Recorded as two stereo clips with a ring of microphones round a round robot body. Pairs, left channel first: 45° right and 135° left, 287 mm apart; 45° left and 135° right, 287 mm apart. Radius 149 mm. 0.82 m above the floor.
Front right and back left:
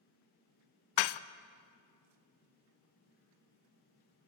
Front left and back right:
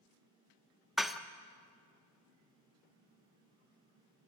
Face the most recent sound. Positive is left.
turn(degrees=-45)